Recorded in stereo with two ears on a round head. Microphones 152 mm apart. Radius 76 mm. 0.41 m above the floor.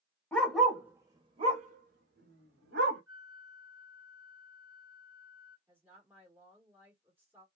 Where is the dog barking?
10° left (ahead or behind), 0.8 m; by 3.0 s 75° right (ahead or behind), 1.2 m.